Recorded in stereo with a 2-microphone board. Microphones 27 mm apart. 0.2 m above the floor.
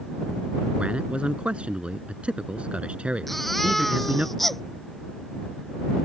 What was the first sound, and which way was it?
A man speaking, 45° right (ahead or behind).